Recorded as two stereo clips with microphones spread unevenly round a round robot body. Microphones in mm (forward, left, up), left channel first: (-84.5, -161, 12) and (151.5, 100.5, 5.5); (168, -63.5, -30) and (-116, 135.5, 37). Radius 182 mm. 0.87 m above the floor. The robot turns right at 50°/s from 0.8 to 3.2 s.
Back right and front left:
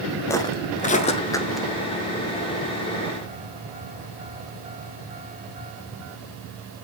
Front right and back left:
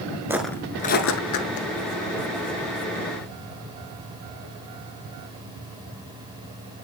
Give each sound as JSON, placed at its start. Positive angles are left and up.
{"t": 0.3, "sound": "footsteps", "azimuth_deg": 165, "distance_m": 0.8}